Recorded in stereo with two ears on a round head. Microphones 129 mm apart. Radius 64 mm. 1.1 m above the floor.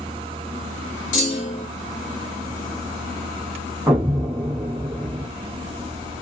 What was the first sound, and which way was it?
A clunk, 55° left (ahead or behind).